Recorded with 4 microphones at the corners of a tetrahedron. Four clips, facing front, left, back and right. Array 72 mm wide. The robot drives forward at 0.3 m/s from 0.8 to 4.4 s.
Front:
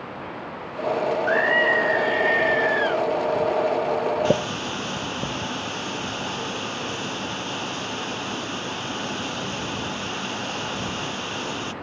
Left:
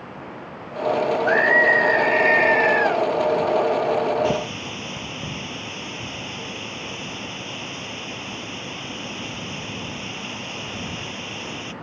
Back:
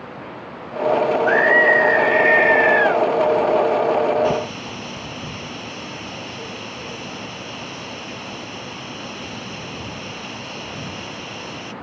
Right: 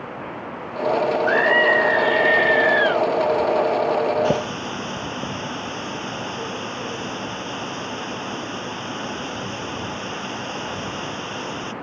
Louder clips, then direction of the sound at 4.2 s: Right 2 dB, back 1 dB; 35° right.